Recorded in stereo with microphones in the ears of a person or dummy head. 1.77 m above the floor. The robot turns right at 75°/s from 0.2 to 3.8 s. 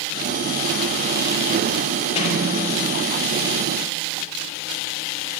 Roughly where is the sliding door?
Left.